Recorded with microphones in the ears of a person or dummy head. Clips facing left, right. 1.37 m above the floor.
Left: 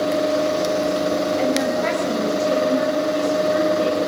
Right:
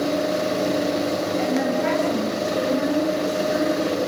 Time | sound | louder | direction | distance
1.4 | a woman speaking | left 2 dB | 60° left (ahead or behind) | 9.5 m